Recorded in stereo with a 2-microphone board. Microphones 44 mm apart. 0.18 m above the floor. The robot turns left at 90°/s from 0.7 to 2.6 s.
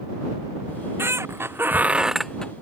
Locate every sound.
0.7 s a squeak: 40° right; by 2.5 s 155° left